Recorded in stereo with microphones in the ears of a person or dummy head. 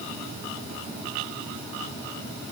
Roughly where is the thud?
No thud in this recording.